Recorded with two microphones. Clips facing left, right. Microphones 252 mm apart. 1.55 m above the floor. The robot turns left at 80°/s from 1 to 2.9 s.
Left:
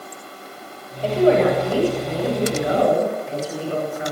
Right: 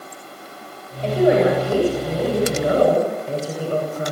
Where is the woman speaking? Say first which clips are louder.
Even; 10° left, 8.5 m; by 4.1 s 140° right, 8.5 m.